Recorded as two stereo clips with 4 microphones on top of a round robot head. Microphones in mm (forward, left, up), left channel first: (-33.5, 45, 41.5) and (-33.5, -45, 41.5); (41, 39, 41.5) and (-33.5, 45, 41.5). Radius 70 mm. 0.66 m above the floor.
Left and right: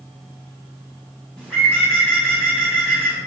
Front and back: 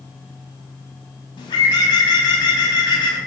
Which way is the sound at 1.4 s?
5° left.